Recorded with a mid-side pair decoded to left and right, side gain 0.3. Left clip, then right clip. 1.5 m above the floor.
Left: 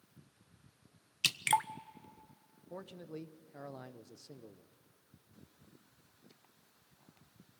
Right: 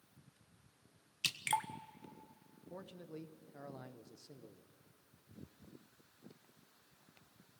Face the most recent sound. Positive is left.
turn(degrees=40)